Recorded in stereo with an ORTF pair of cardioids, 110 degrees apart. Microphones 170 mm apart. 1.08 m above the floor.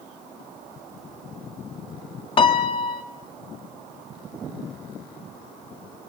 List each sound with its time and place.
2.4 s a piano: 30° left, 1.6 m